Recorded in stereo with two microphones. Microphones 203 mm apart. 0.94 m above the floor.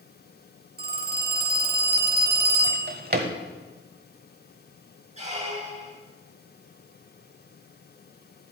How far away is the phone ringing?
About 1.4 m.